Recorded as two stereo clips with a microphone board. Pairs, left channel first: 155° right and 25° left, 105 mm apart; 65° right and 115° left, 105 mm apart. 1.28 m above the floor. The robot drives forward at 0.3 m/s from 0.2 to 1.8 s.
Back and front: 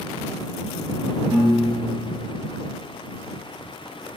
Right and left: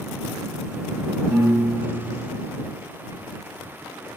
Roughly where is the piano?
Ahead left.